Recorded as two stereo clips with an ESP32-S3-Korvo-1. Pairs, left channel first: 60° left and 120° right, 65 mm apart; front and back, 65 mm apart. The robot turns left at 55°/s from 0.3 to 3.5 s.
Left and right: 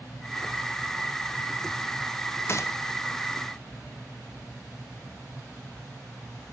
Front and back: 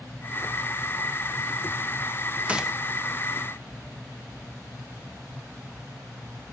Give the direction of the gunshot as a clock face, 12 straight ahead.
8 o'clock.